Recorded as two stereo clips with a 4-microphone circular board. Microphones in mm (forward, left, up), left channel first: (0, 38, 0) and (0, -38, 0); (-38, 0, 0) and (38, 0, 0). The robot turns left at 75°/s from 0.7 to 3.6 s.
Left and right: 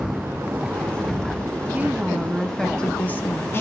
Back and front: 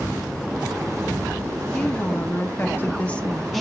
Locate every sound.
1.7 s a woman speaking: 125° right, 1.0 m; by 3.6 s 95° left, 1.0 m